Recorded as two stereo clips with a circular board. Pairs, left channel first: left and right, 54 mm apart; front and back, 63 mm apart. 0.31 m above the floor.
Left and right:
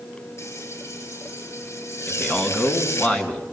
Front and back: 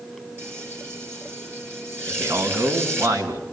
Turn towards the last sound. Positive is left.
turn(degrees=165)